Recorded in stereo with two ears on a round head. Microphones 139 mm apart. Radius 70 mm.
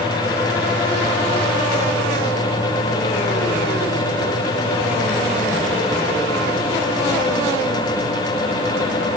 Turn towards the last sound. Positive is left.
No sound to turn to.